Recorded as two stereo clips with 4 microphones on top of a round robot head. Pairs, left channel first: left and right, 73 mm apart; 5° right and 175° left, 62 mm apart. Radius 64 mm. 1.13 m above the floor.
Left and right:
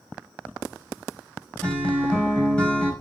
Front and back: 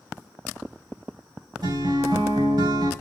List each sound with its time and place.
1.6 s a guitar: 165° left, 5 m